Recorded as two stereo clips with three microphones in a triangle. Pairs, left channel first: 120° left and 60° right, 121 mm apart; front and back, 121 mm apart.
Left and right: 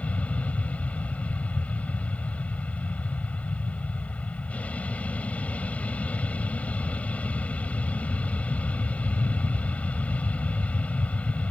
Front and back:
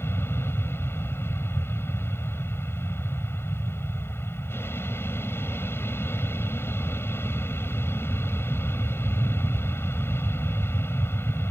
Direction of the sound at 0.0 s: 50° left.